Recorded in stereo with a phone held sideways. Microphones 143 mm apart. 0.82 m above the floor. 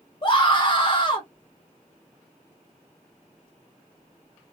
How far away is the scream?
About 1.0 m.